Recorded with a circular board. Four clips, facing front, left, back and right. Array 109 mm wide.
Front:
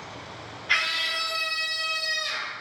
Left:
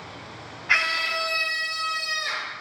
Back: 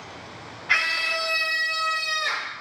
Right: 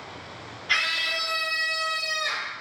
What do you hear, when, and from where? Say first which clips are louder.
0.7 s a scream: left 3 dB, back 3 dB; 115° left, 1.2 m; by 2.5 s 175° left, 1.8 m